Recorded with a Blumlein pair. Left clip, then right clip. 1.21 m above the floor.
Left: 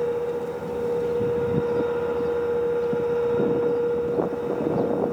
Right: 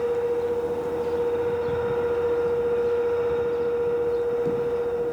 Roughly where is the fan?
Ahead.